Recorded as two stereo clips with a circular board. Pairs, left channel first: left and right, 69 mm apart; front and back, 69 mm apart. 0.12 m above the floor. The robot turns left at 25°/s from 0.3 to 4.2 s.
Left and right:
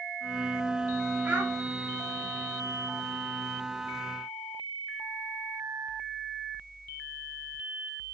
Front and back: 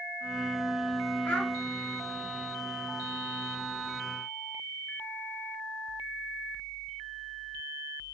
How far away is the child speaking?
About 1.3 m.